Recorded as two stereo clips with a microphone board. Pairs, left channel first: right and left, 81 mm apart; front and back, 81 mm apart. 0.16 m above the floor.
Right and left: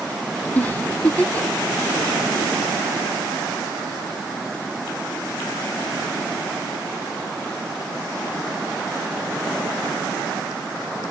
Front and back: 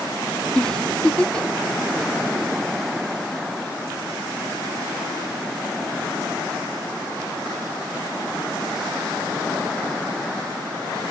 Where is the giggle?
60° right, 0.6 m.